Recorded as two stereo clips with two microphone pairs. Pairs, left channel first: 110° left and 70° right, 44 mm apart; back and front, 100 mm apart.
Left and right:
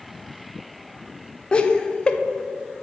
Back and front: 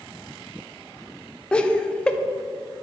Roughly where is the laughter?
Behind left.